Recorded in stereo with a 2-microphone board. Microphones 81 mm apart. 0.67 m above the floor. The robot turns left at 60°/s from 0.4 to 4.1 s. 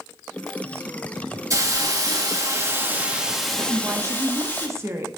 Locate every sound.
1.5 s a hiss: 60° right, 1.5 m; by 4.7 s 145° left, 1.5 m
3.7 s a woman speaking: 30° right (ahead or behind), 1.1 m; by 5.1 s 35° right (ahead or behind), 1.1 m